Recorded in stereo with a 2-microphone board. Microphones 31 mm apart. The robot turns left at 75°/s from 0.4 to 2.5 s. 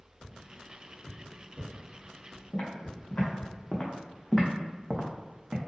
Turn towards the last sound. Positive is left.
turn(degrees=-55)  # may be behind; listen again after turning